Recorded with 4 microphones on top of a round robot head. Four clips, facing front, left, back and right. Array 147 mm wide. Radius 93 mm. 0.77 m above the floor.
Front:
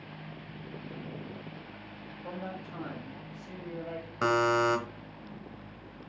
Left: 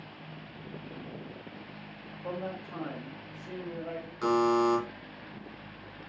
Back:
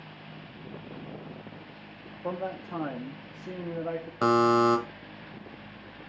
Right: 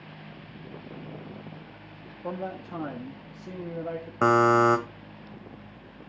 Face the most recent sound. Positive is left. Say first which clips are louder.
# right 5 dB, back 4 dB
turn(degrees=-115)